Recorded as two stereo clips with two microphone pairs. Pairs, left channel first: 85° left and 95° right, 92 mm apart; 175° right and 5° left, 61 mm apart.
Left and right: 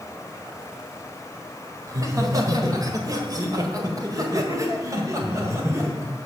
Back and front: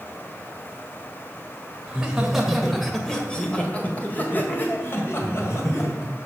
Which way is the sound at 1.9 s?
65° right.